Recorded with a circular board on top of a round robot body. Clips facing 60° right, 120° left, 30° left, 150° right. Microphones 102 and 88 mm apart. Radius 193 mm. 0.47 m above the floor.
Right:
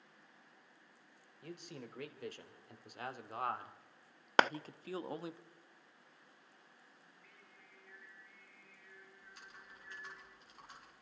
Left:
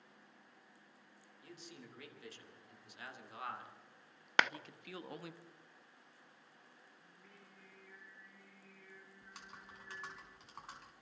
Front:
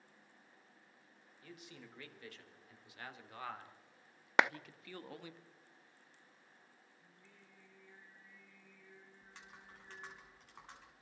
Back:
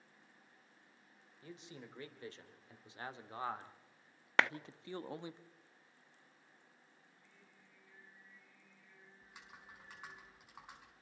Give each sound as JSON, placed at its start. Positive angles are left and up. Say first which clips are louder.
{"t": 1.4, "sound": "a man speaking", "louder": "right 6 dB, back 3 dB", "azimuth_deg": -90, "distance_m": 3.5}
{"t": 4.4, "sound": "a clap", "louder": "right 4 dB, front 2 dB", "azimuth_deg": -35, "distance_m": 0.7}
{"t": 7.0, "sound": "singing", "louder": "left 2 dB, front 2 dB", "azimuth_deg": 55, "distance_m": 10.0}
{"t": 9.2, "sound": "typing on a keyboard", "louder": "left 4 dB, back 3 dB", "azimuth_deg": 130, "distance_m": 5.0}